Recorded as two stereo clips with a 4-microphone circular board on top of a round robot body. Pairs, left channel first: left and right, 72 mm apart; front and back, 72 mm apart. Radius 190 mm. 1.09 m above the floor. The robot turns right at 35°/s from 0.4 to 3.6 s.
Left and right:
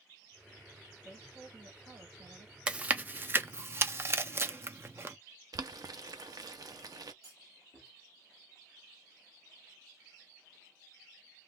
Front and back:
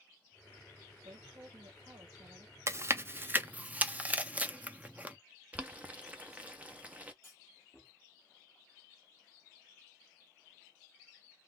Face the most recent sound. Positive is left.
turn(degrees=-120)